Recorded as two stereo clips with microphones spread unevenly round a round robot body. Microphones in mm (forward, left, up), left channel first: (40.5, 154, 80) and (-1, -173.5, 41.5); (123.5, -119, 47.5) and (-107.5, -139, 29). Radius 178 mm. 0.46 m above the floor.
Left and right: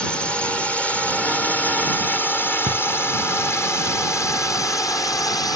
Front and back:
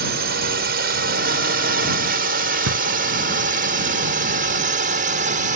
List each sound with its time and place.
0.0 s a drone: 175° left; by 5.6 s 165° left
2.7 s a drawer: 170° right